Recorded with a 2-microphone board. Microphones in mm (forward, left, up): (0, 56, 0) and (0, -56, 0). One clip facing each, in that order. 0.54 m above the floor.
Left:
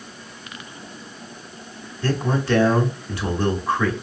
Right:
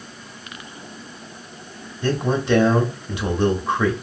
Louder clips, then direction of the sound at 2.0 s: Right 2 dB; 20° right (ahead or behind).